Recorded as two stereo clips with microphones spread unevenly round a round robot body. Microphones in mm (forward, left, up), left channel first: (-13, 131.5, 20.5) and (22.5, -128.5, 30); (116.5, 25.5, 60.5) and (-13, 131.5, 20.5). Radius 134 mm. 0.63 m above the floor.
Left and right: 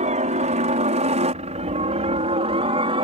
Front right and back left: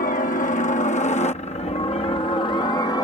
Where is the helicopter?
35° right; by 3.0 s 105° right.